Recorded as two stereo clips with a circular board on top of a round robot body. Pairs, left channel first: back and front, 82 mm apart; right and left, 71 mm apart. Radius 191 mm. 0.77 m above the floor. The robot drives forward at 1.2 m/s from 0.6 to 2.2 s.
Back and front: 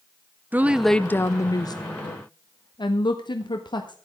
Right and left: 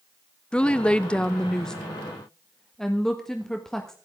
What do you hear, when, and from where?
0.5 s a woman speaking: 35° right, 1.0 m; by 4.0 s 175° right, 1.9 m